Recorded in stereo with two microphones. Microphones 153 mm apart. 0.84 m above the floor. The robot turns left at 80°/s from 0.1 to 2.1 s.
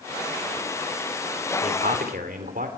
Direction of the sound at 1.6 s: 65° right.